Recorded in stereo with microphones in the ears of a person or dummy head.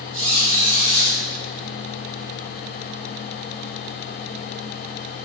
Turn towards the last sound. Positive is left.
turn(degrees=10)  # may be behind; listen again after turning